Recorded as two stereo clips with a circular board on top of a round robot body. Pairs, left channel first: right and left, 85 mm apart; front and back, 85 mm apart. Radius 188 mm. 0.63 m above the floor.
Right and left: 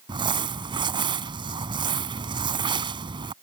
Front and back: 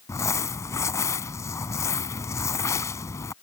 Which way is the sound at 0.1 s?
60° left.